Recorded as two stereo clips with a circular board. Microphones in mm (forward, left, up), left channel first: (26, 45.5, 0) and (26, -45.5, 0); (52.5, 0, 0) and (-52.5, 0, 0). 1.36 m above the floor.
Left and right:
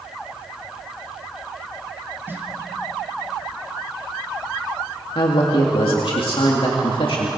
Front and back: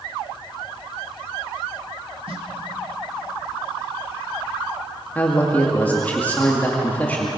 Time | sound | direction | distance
2.3 | a snare drum | 155° right | 2 m
5.2 | a man speaking | 75° left | 2 m